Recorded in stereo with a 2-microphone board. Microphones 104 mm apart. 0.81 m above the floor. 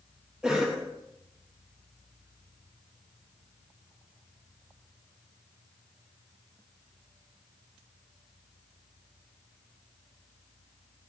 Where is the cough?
5° right (ahead or behind), 0.8 m.